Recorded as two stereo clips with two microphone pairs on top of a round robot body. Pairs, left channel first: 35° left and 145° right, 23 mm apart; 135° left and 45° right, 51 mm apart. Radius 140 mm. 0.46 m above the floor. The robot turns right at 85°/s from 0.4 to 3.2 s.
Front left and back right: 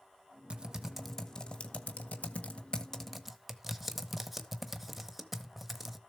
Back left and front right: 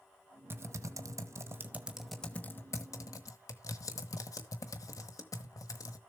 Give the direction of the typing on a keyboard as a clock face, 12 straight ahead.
3 o'clock.